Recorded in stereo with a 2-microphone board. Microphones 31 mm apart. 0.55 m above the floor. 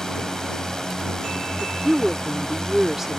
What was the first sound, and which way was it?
A drone, 20° left (ahead or behind).